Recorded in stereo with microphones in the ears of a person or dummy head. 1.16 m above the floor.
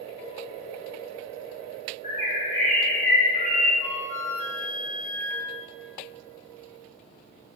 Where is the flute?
85° left, 1.1 m.